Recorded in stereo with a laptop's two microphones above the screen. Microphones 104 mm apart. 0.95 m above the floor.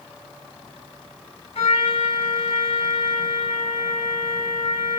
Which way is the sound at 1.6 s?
75° left (ahead or behind).